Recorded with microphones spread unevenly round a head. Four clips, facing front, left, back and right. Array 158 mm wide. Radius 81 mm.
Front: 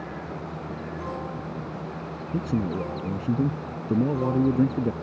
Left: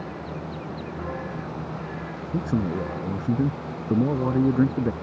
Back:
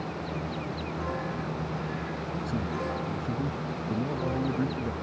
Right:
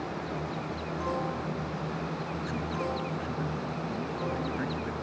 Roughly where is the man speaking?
Ahead left.